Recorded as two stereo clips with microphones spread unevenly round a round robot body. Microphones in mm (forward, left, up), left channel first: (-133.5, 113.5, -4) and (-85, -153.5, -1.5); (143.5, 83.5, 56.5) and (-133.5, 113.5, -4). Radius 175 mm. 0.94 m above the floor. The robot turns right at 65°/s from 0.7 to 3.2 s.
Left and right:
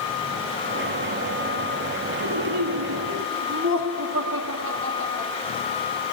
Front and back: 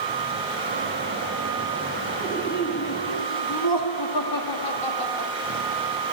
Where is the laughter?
90° right, 1.7 m; by 5.3 s 25° right, 1.7 m.